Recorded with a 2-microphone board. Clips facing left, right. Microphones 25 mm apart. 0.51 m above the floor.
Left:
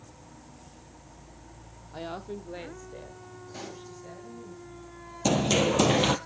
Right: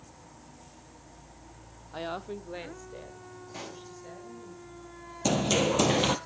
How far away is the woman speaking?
About 0.6 m.